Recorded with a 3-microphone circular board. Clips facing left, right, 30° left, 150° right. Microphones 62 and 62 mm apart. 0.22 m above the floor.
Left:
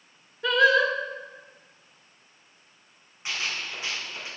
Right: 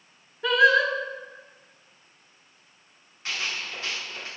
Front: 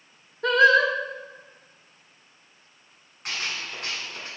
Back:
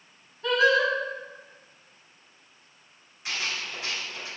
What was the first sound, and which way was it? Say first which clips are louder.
Singing: right 1 dB, front 4 dB; straight ahead.